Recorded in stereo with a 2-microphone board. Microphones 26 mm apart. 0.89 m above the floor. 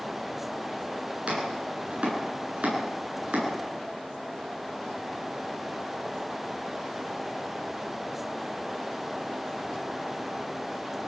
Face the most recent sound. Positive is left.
turn(degrees=-50)  # may be behind; listen again after turning